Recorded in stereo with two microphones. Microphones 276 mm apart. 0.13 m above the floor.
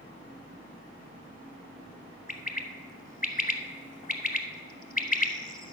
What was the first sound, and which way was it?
A bird, 30° left (ahead or behind).